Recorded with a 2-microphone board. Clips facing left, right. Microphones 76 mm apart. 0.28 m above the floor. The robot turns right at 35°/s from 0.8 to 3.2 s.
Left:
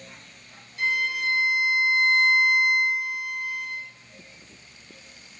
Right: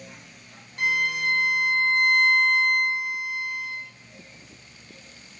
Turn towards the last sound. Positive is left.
turn(degrees=-10)